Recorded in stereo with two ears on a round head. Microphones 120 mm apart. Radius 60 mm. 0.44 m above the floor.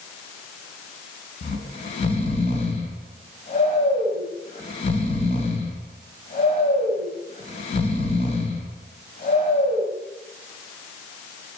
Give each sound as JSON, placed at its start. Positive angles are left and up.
{"t": 1.4, "sound": "snoring", "side_deg": 50, "distance_m": 2.5}